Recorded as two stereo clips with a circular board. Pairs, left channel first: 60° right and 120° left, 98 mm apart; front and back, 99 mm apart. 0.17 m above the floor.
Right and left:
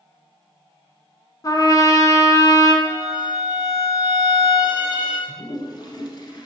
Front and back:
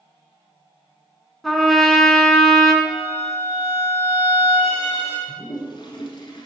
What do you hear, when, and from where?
1.4 s a trumpet: 90° right, 0.8 m
2.8 s a violin: 20° right, 2 m
5.3 s a toilet flushing: 25° right, 1.4 m